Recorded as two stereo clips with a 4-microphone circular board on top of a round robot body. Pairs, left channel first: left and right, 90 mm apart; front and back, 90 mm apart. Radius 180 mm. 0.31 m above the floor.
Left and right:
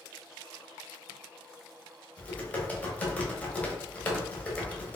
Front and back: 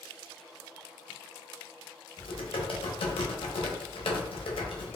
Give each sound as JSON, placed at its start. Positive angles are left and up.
{"t": 2.2, "sound": "typing on a keyboard", "azimuth_deg": 15, "distance_m": 0.7}